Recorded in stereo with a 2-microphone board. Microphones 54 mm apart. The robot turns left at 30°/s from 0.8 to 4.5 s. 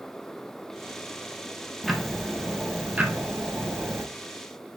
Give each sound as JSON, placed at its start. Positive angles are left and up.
{"t": 1.8, "sound": "ticking", "azimuth_deg": 5, "distance_m": 1.1}